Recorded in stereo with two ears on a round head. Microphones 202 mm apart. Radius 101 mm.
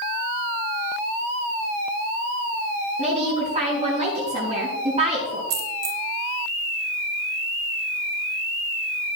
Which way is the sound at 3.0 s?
25° right (ahead or behind).